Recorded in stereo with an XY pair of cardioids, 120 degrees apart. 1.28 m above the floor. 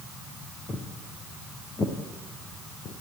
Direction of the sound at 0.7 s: 25° left.